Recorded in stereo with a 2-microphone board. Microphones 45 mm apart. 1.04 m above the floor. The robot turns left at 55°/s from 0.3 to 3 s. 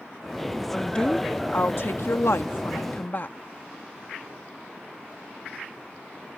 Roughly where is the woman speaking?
Behind.